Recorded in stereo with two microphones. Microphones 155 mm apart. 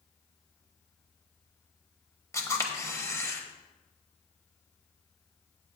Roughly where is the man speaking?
No man speaking in this recording.